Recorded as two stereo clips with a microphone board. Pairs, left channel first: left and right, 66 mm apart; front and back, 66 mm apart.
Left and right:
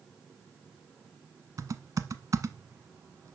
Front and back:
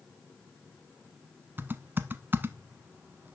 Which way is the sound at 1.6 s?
120° right.